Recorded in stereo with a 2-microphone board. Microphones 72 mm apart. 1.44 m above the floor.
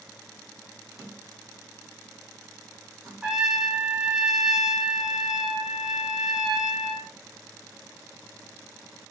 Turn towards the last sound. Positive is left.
turn(degrees=-10)  # may be behind; listen again after turning